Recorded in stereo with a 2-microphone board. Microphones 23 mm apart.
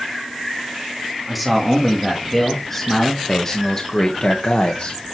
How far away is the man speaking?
About 3 m.